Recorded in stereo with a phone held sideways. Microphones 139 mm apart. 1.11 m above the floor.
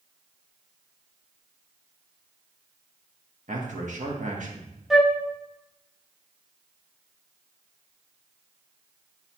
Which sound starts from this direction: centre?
A flute, at 4.9 s.